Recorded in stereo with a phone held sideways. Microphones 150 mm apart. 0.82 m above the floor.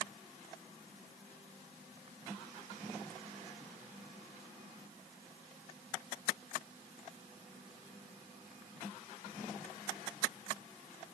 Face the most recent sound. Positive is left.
No sound to turn to.